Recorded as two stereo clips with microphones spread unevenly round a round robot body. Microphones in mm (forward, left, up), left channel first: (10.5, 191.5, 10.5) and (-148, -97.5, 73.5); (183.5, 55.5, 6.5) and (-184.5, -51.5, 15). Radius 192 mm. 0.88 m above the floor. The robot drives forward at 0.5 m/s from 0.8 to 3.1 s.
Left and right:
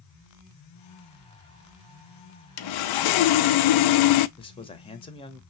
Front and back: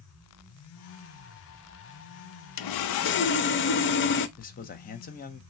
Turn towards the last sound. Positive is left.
turn(degrees=50)